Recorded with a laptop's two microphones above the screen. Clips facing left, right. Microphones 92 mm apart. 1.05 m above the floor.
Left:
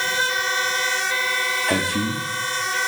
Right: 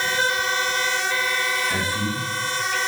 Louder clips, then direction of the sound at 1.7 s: Left 3 dB; 75° left (ahead or behind).